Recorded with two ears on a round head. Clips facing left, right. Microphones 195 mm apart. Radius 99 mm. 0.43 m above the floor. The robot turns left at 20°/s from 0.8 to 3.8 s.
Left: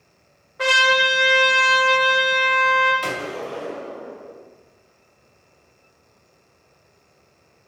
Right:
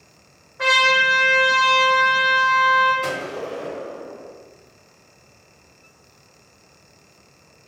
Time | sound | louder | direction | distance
0.6 | a trumpet | left 2 dB | 130° left | 1.1 m
3.0 | a gunshot | right 1 dB | 65° left (ahead or behind) | 1.8 m